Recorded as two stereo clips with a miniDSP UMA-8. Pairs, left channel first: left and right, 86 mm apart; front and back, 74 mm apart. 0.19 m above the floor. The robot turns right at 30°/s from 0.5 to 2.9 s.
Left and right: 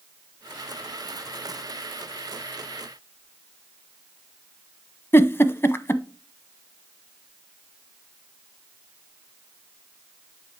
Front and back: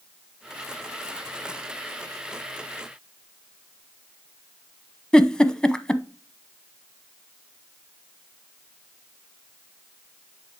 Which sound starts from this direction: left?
A giggle, at 5.1 s.